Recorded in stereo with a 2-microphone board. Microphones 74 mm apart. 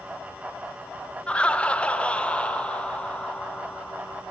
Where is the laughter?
15° left (ahead or behind), 1.1 m.